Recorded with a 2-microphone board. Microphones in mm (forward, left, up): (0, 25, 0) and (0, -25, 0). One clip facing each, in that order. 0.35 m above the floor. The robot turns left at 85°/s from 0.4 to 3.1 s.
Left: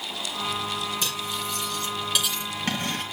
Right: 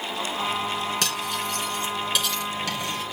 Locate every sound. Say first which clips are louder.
1.0 s cutlery clinking: right 3 dB; 75° right (ahead or behind), 3 m; by 3.0 s 70° left (ahead or behind), 3 m